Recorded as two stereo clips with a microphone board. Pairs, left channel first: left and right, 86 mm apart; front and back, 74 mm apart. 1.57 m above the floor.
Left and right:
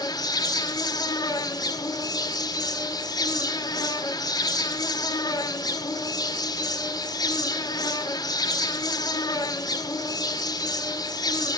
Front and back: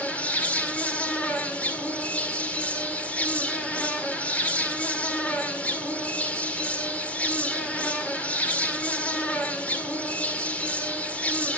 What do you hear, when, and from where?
0.0 s an insect: 70° left, 1.9 m